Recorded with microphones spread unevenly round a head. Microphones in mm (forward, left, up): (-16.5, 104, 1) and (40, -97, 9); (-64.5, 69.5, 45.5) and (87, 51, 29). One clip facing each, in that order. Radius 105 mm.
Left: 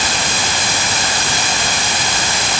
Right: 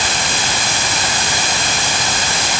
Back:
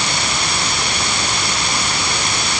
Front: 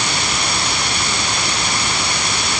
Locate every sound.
Only background noise.